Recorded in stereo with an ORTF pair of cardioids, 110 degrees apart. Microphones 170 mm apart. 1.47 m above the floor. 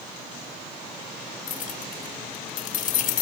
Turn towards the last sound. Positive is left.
turn(degrees=55)